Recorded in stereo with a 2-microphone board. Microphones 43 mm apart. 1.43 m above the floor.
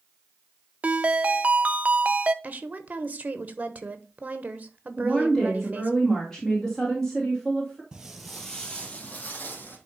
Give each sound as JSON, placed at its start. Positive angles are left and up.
{"t": 0.8, "sound": "a ringtone", "side_deg": -35, "distance_m": 0.6}
{"t": 2.4, "sound": "a woman speaking", "side_deg": -35, "distance_m": 1.3}
{"t": 5.0, "sound": "a woman speaking", "side_deg": 10, "distance_m": 2.5}
{"t": 7.9, "sound": "footsteps", "side_deg": -15, "distance_m": 1.7}